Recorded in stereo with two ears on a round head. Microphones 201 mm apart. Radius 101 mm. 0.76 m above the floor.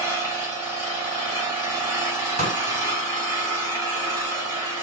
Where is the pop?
35° right (ahead or behind), 3.5 m.